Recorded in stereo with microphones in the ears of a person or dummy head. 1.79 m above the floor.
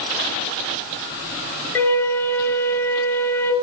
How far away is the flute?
About 1.1 m.